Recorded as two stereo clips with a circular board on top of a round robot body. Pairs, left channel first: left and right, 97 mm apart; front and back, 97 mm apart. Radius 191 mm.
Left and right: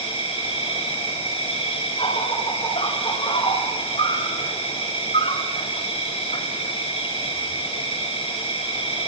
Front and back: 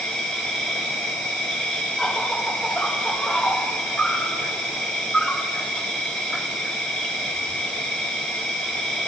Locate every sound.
0.0 s an insect: 85° left, 7 m